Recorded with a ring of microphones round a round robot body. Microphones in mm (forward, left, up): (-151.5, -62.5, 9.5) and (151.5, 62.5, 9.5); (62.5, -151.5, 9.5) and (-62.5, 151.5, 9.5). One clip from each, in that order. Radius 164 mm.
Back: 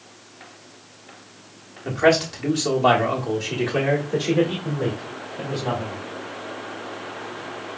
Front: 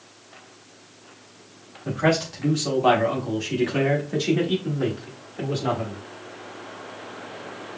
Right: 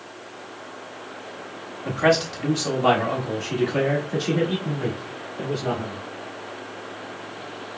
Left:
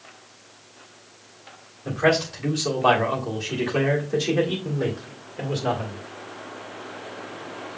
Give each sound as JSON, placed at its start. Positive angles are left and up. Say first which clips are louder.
{"t": 1.9, "sound": "a man speaking", "louder": "back 4 dB, right 1 dB", "azimuth_deg": -95, "distance_m": 1.5}